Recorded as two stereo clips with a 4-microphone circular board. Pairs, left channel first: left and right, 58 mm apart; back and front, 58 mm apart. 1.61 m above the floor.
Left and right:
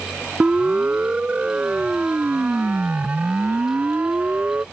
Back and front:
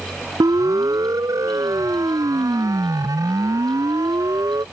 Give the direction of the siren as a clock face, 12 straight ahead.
1 o'clock.